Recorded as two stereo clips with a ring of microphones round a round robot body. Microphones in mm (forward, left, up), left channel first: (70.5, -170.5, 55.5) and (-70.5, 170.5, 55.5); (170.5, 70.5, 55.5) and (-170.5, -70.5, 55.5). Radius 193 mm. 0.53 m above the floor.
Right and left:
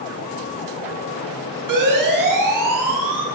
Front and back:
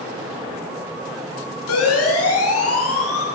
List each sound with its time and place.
1.7 s a siren: 75° left, 9.5 m